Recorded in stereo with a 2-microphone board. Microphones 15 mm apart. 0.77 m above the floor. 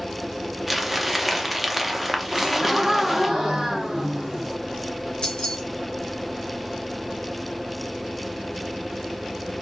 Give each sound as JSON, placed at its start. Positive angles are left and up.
{"t": 0.7, "sound": "crumpling", "side_deg": -5, "distance_m": 0.5}
{"t": 2.3, "sound": "a gasp", "side_deg": -60, "distance_m": 1.4}
{"t": 5.2, "sound": "keys jangling", "side_deg": 70, "distance_m": 1.1}